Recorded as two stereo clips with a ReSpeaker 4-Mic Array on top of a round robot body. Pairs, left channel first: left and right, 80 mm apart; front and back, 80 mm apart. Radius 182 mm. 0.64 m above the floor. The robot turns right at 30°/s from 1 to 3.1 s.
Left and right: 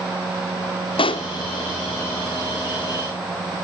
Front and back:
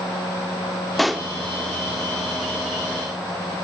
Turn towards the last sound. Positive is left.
turn(degrees=155)